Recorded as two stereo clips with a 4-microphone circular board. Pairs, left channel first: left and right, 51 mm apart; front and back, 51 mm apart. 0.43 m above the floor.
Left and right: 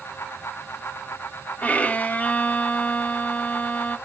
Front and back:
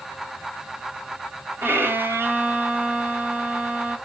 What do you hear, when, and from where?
1.6 s a violin: 140° left, 1.2 m